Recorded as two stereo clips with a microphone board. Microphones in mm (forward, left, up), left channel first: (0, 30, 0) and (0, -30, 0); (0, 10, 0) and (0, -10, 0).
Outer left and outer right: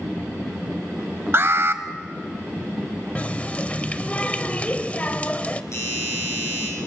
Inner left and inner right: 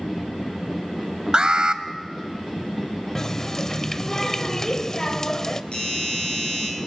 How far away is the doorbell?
About 7 m.